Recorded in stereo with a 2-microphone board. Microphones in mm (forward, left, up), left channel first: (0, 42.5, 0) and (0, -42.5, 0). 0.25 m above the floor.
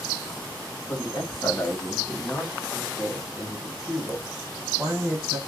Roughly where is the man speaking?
Left.